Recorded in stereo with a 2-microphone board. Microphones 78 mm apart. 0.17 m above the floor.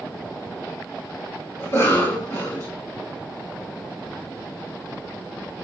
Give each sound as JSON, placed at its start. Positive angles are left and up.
{"t": 1.6, "sound": "a cough", "side_deg": 40, "distance_m": 2.5}